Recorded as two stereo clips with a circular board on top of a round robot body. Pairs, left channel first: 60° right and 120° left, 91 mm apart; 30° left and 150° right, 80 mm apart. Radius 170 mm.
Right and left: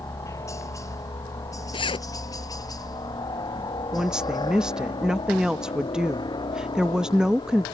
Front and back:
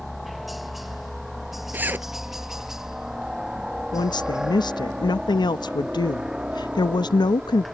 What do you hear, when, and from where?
0.0 s a helicopter: 60° right; by 7.7 s 75° right
1.7 s a zipper: 85° right
3.9 s a woman speaking: 35° left